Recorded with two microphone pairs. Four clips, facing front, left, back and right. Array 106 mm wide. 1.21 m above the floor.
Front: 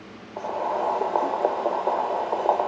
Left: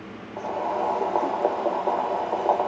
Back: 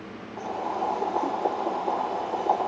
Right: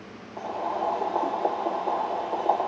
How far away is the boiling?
About 1.5 m.